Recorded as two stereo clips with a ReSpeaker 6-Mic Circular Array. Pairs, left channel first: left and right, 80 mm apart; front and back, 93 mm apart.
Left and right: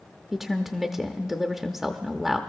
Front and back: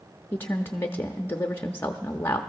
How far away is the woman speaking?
About 0.7 m.